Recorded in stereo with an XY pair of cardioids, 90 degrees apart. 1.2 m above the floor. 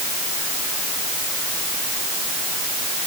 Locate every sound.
Only background noise.